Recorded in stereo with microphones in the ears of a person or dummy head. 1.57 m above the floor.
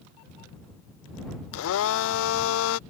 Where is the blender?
70° left (ahead or behind).